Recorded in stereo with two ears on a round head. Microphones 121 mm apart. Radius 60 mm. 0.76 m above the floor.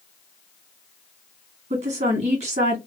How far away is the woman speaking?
About 1.4 m.